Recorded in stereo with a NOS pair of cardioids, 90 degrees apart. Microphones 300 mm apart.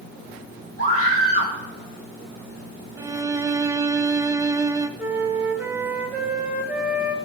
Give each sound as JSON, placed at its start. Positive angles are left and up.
{"t": 0.8, "sound": "a scream", "azimuth_deg": -50, "distance_m": 5.5}
{"t": 3.0, "sound": "a violin", "azimuth_deg": -10, "distance_m": 0.8}
{"t": 5.0, "sound": "a flute", "azimuth_deg": -5, "distance_m": 1.6}